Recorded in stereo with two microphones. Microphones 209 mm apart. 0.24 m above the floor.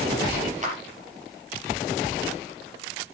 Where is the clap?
35° right (ahead or behind), 4 m.